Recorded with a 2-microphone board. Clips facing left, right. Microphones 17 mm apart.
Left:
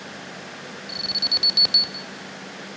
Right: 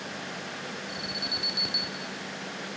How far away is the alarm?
About 2.5 m.